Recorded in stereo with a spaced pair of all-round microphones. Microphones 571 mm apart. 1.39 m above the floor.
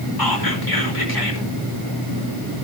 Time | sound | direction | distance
0.2 | whispering | 40° left (ahead or behind) | 5.5 m